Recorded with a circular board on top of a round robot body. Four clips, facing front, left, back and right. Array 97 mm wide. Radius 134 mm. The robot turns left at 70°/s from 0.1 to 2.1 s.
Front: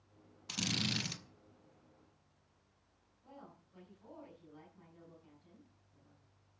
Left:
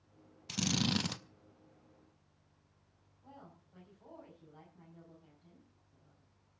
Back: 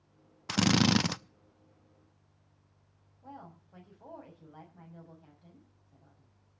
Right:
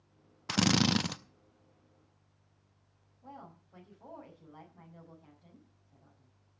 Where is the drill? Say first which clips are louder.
Right 7 dB, back 14 dB; 130° right, 0.6 m; by 1.2 s 175° right, 0.6 m.